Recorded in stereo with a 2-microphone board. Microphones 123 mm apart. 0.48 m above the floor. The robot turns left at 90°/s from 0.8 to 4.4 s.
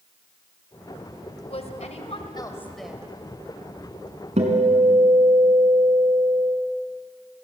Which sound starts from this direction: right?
A guitar, at 4.4 s.